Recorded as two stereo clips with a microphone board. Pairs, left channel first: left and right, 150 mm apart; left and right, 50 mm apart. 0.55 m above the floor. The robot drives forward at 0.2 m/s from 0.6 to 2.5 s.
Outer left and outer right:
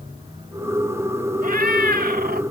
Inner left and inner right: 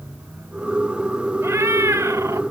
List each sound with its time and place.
1.4 s a cat meowing: 65° right (ahead or behind), 0.7 m; by 2.4 s 85° right, 0.6 m